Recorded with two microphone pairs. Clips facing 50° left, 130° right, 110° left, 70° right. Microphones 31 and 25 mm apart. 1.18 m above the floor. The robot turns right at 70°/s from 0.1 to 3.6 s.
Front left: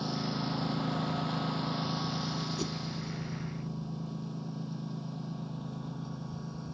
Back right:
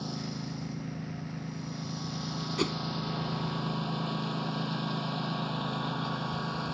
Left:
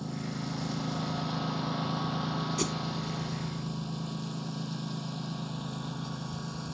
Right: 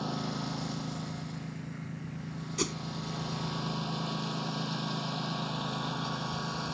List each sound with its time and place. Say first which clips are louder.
0.0 s a lawn mower: front left 3 dB, right 2 dB; 20° right; by 6.7 s 135° right
2.6 s a whoosh: back right 5 dB, right 2 dB; 160° right; by 2.8 s 145° right